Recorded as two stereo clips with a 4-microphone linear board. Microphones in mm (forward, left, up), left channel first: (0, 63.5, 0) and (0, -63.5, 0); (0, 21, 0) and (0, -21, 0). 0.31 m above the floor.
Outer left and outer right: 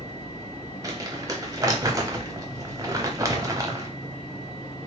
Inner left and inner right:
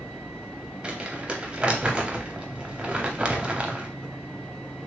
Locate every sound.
0.8 s crumpling: 25° right (ahead or behind), 0.6 m